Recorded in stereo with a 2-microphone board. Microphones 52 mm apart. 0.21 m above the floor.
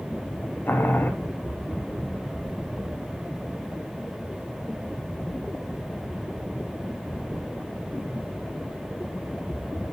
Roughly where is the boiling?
Left.